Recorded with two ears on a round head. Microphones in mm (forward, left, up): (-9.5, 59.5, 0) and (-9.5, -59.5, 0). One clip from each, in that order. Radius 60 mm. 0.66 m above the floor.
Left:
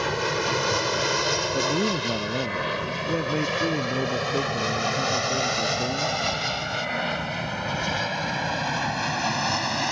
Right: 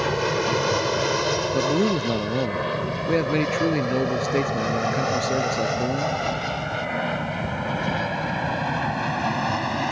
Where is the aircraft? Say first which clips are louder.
Right 2 dB; 20° left (ahead or behind); by 9.9 s 70° left (ahead or behind).